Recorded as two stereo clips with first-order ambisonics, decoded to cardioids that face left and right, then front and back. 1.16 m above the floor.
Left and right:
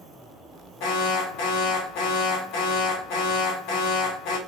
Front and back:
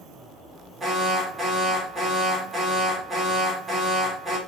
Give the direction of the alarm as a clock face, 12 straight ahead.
9 o'clock.